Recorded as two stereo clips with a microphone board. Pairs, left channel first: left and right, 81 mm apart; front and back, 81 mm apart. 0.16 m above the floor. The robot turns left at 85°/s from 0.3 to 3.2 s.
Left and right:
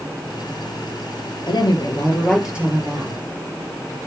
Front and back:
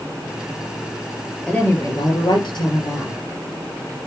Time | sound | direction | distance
1.5 | a woman speaking | 80° left | 4 m